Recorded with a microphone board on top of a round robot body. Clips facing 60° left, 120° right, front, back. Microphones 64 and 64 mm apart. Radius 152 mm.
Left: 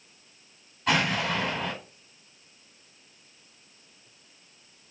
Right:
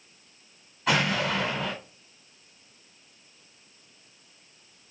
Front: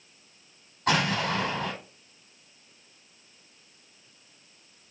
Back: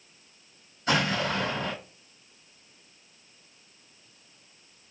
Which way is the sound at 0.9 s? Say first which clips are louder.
Even, front 1 dB; 30° right.